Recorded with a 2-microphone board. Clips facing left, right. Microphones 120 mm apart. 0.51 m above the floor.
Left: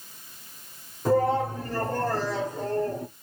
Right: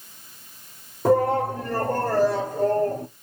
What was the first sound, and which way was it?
A shout, 60° right (ahead or behind).